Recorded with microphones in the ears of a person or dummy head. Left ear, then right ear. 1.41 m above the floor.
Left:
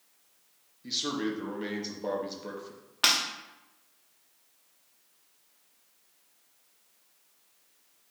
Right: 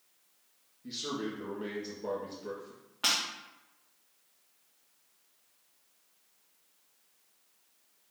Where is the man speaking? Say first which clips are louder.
Left 5 dB; 25° left (ahead or behind), 1.0 m.